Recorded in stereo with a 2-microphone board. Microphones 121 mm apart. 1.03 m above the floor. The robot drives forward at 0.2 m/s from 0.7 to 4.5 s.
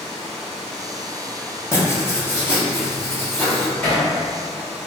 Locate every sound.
0.0 s running water: 5° left (ahead or behind), 0.9 m
1.7 s writing: 20° left (ahead or behind), 0.7 m; by 3.7 s 15° left (ahead or behind), 1.0 m
3.8 s hammering: 20° left (ahead or behind), 1.3 m; by 4.1 s 15° left (ahead or behind), 1.3 m